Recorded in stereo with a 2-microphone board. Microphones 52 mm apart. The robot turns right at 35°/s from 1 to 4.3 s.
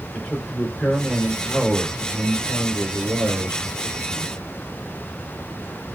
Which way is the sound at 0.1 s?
155° left.